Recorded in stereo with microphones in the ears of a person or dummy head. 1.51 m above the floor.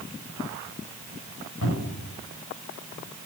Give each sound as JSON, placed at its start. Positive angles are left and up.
{"t": 1.6, "sound": "a cupboard door", "side_deg": 55, "distance_m": 5.5}